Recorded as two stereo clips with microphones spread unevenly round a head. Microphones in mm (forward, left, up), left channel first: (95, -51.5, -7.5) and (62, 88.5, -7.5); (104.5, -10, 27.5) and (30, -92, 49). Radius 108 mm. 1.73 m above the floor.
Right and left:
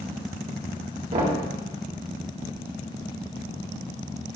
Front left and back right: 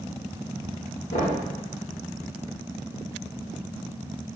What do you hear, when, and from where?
1.1 s knocking: 75° left, 2 m